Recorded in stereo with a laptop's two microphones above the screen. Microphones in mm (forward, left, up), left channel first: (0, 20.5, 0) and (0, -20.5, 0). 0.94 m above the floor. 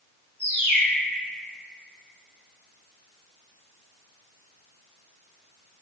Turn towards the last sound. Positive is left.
turn(degrees=-80)